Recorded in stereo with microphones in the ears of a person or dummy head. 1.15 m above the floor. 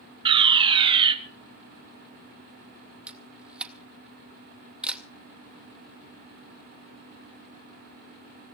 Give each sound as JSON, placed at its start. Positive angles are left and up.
{"t": 0.2, "sound": "a fire alarm", "side_deg": -20, "distance_m": 1.0}
{"t": 3.1, "sound": "a camera shutter", "side_deg": -10, "distance_m": 0.6}